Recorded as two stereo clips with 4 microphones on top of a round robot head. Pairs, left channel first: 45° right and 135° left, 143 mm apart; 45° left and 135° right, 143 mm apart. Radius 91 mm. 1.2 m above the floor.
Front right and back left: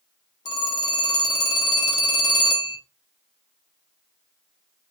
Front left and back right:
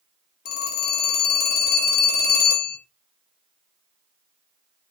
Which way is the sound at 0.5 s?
15° left.